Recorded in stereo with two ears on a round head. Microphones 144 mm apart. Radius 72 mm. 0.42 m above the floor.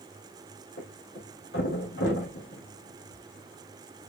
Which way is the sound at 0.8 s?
85° left.